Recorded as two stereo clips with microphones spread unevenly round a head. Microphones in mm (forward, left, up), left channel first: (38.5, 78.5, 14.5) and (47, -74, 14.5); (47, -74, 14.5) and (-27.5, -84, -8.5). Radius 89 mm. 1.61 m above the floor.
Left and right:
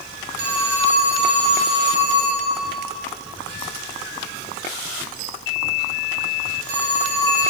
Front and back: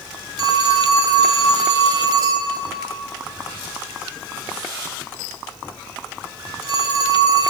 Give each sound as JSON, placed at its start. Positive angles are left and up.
{"t": 0.4, "sound": "a phone ringing", "azimuth_deg": -135, "distance_m": 5.0}